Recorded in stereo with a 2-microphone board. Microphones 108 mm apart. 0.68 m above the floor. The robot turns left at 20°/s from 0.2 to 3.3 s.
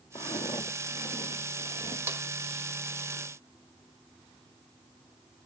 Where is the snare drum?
20° right (ahead or behind), 0.9 m; by 2.2 s 25° right (ahead or behind), 0.9 m.